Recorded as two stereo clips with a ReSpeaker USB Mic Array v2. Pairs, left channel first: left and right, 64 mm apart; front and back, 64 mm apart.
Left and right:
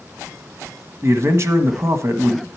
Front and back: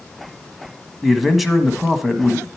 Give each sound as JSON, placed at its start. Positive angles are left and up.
{"t": 1.0, "sound": "a man speaking", "azimuth_deg": -90, "distance_m": 1.4}